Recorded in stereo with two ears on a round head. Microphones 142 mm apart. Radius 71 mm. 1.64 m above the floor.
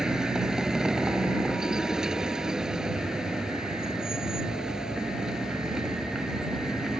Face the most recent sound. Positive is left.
turn(degrees=-5)  # may be behind; listen again after turning